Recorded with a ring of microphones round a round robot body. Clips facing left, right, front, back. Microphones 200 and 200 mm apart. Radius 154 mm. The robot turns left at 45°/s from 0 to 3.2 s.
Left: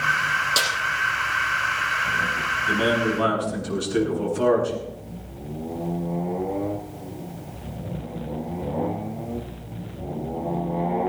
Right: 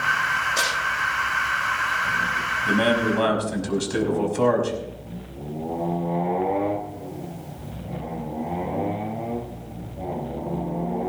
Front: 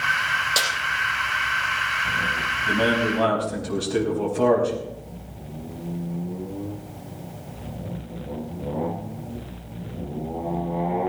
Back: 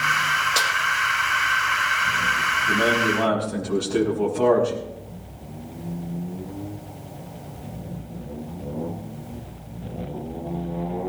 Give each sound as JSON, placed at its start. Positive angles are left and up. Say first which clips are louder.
{"t": 0.6, "sound": "a snare drum", "louder": "even, front 1 dB", "azimuth_deg": 90, "distance_m": 6.0}
{"t": 2.6, "sound": "a man speaking", "louder": "right 2 dB, even", "azimuth_deg": -60, "distance_m": 5.0}